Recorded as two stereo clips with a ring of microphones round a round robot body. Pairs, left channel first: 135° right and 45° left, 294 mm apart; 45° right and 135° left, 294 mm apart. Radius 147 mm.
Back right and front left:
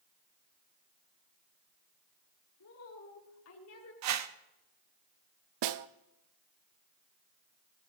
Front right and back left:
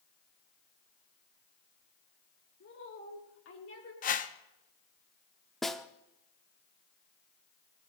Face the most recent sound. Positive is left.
turn(degrees=45)